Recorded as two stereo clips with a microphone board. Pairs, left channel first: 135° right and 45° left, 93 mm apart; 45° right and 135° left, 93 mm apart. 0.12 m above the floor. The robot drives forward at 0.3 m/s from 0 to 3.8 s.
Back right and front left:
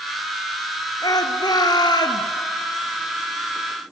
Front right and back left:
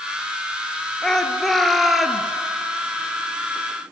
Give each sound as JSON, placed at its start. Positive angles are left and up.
{"t": 1.0, "sound": "a shout", "azimuth_deg": -125, "distance_m": 1.5}